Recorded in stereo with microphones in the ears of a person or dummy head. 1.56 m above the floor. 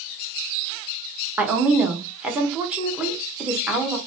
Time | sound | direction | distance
1.4 | a woman speaking | 5° right (ahead or behind) | 0.6 m